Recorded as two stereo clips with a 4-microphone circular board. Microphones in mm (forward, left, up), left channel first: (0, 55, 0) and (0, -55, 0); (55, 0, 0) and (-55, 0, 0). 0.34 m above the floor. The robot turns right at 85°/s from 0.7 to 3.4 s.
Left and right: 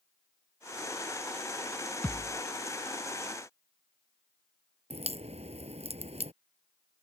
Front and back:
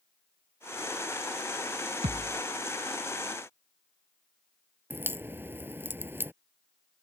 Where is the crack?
110° right.